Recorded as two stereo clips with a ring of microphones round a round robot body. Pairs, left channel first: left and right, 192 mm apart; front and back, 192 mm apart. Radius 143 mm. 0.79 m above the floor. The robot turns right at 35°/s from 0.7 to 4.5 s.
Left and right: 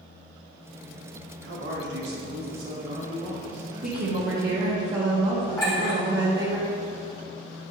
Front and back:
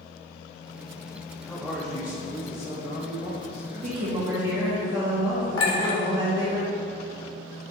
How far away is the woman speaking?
About 1.3 m.